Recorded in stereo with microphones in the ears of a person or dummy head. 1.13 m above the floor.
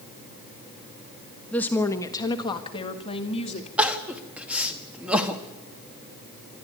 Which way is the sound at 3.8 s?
5° right (ahead or behind).